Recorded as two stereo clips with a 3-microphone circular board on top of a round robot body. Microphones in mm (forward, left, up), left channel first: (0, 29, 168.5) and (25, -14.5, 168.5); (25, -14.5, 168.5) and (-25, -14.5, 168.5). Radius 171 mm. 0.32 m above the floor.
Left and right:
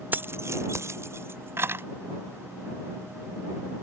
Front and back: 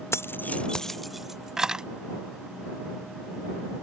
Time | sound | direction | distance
0.1 | keys jangling | 10° right | ?